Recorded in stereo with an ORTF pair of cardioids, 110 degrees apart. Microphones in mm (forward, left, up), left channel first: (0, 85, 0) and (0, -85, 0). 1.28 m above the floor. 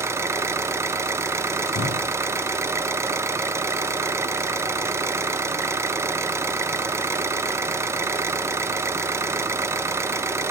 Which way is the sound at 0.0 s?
15° right.